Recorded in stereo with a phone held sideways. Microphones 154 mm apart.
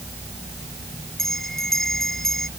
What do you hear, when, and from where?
1.2 s a bell: centre (ahead or behind)